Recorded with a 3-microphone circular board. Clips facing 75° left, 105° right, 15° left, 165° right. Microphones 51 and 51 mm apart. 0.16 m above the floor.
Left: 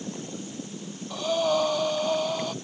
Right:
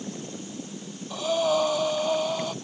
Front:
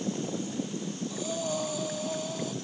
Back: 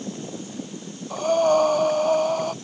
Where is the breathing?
165° left.